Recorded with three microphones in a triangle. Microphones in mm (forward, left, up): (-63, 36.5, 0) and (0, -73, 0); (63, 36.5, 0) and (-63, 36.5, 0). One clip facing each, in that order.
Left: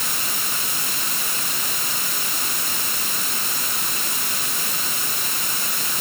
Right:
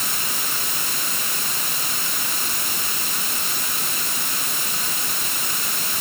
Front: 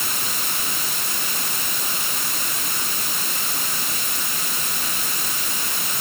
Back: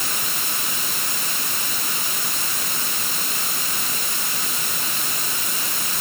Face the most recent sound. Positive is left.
No sound to turn to.